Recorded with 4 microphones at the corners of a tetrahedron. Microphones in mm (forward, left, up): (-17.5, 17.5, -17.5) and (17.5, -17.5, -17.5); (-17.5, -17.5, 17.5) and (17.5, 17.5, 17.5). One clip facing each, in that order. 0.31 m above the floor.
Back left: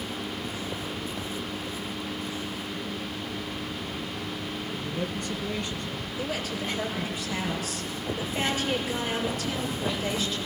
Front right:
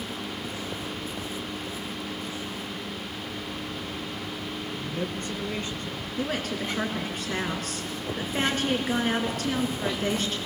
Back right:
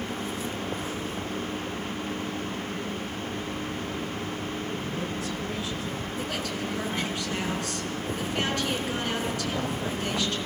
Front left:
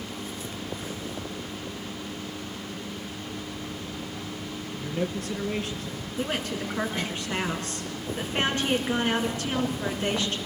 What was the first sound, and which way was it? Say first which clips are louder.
A man speaking: even, front left 1 dB; 5° left.